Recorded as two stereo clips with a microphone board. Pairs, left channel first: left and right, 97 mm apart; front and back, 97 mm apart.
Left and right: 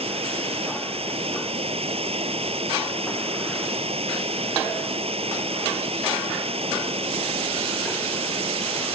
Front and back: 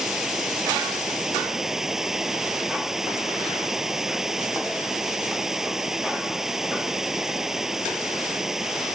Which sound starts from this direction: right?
Running water, at 0.0 s.